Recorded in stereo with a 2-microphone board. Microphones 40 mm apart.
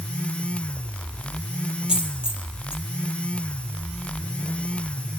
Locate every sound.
1.9 s a dropped coin: 20° right (ahead or behind), 1.8 m